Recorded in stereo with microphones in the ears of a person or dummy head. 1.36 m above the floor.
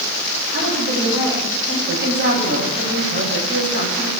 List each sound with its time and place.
0.5 s a woman speaking: 60° right (ahead or behind), 8 m
1.9 s a woman speaking: 65° right (ahead or behind), 9 m